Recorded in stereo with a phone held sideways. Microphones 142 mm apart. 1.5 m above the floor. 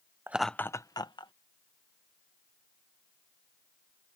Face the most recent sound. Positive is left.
turn(degrees=35)  # may be behind; listen again after turning